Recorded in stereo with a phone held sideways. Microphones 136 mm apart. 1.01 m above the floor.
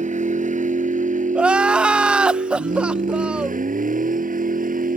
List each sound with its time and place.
0.0 s a vehicle: 60° right (ahead or behind); by 5.0 s 80° right
1.4 s crying: 5° right (ahead or behind)